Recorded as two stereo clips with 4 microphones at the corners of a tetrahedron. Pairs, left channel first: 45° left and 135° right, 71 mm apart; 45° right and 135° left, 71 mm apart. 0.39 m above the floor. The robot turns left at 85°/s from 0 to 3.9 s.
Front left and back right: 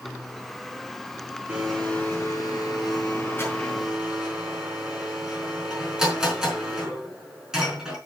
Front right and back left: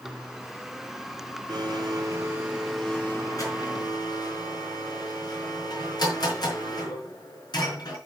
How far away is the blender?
About 4.5 m.